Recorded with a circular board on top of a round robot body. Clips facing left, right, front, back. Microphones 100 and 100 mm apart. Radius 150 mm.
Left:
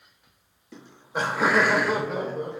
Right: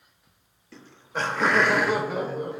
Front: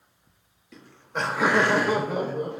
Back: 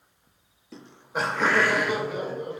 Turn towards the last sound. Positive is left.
turn(degrees=-5)